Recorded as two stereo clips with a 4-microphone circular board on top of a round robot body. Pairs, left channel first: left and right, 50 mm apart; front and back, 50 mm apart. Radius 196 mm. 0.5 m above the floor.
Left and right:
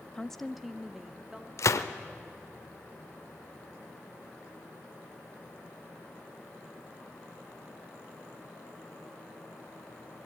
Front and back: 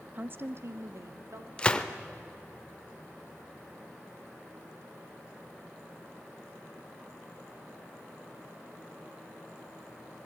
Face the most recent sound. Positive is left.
turn(degrees=70)